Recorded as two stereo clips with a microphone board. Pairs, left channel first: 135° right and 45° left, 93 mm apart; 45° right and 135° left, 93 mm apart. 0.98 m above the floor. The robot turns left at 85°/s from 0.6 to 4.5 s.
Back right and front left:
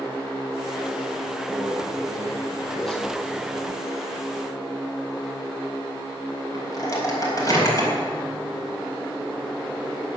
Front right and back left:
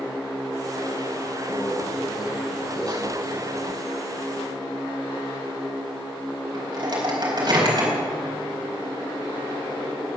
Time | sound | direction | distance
1.5 | a microwave | 70° left | 4 m